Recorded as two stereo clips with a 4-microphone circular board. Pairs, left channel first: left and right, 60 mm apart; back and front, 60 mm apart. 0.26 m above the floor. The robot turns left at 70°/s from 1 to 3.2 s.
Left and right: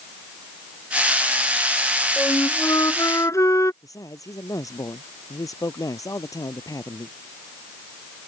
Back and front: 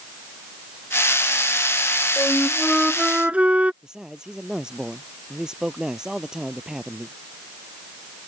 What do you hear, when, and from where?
2.2 s a flute: 140° left; by 3.7 s 65° left
3.8 s a man speaking: 80° left